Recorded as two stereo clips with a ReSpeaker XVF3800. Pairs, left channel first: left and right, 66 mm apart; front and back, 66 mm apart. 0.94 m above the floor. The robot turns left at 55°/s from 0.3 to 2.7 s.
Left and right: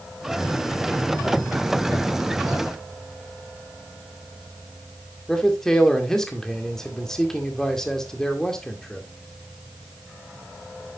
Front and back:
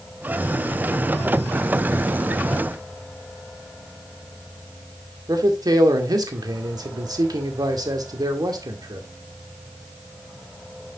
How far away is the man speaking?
About 2 m.